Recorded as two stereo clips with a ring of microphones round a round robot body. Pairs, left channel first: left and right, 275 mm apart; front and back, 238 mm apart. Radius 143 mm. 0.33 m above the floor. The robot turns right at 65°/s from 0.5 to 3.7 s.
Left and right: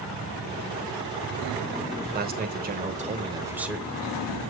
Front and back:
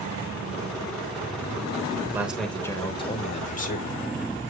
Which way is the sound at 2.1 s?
105° right.